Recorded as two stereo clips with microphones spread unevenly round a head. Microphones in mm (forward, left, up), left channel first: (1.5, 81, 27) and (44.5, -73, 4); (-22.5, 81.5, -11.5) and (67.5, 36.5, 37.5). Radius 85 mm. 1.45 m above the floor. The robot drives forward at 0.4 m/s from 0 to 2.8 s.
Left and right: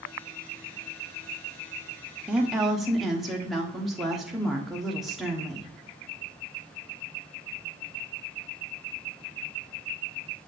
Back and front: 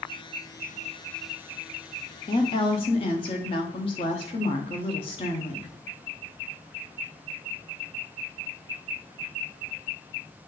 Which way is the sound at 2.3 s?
155° right.